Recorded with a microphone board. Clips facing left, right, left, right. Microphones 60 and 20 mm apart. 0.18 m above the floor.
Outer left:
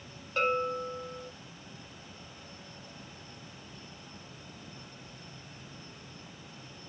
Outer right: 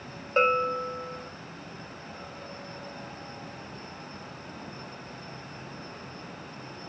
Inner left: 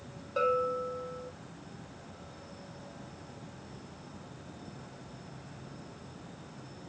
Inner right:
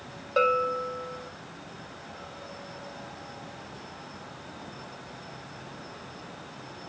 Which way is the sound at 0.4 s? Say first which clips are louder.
Outer right 5 dB, inner right 5 dB; 40° right (ahead or behind).